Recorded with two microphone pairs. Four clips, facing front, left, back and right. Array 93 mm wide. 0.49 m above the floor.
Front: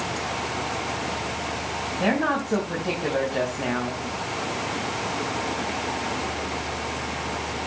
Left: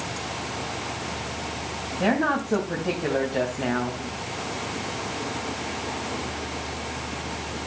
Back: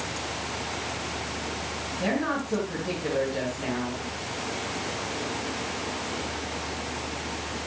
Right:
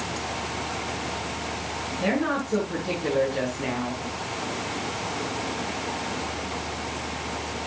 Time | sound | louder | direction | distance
2.0 | a woman speaking | left 2 dB, front 4 dB | 50° left | 3.5 m